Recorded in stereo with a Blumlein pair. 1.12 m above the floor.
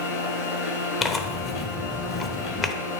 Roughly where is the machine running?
Ahead left.